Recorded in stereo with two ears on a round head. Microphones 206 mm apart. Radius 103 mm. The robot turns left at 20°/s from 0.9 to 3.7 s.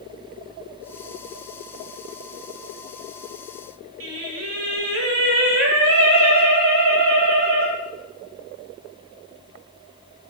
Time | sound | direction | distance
4.0 | singing | 65° right (ahead or behind) | 2 m